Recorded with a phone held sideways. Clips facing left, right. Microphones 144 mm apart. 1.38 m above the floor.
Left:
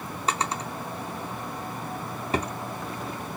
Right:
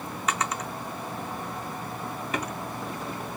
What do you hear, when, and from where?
0.3 s a drawer: 30° left (ahead or behind), 0.5 m